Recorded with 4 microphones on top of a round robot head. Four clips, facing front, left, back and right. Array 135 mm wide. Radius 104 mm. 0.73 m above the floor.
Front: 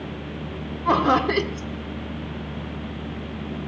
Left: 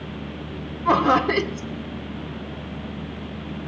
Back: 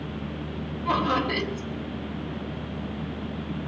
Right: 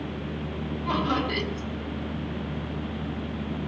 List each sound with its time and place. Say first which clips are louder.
0.8 s laughter: left 9 dB, front 6 dB; 50° left, 2.0 m